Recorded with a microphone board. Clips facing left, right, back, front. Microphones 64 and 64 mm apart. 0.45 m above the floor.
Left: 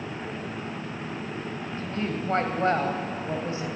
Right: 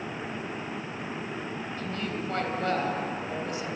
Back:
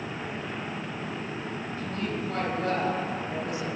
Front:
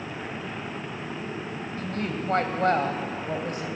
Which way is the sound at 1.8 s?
35° left.